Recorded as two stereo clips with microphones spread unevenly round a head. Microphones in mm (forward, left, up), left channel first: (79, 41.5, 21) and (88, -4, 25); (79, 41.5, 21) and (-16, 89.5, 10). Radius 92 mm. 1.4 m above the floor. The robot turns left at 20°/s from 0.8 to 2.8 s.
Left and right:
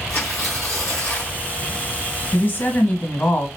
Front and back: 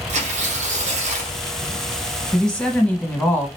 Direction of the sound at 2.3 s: 60° left.